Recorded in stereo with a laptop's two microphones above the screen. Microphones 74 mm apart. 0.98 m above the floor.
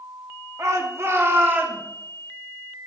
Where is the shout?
45° right (ahead or behind), 2 m; by 1.8 s 25° right (ahead or behind), 3 m.